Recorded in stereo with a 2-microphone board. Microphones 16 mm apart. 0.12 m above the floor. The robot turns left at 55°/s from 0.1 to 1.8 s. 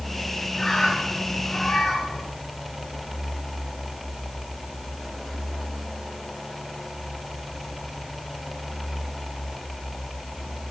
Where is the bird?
155° left, 4.5 m; by 2.3 s 85° left, 4.5 m.